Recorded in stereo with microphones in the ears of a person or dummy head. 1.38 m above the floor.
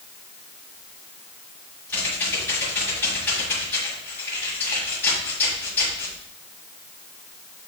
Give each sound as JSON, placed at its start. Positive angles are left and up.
{"t": 1.9, "sound": "typing on a keyboard", "side_deg": 10, "distance_m": 5.5}